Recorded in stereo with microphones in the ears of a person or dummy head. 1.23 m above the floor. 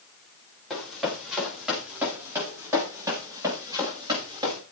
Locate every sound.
0.7 s running footsteps: centre (ahead or behind), 8.5 m; by 4.6 s 25° right (ahead or behind), 7.5 m